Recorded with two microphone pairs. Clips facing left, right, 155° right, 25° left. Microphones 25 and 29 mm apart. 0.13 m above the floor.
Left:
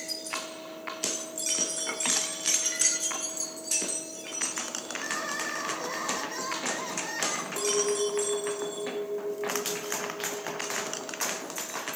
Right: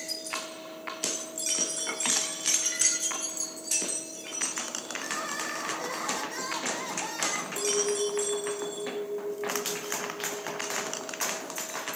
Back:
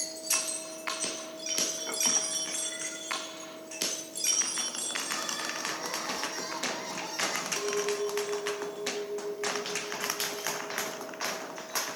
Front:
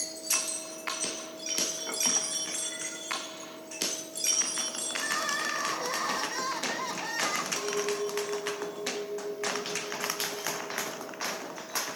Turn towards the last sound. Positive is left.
turn(degrees=115)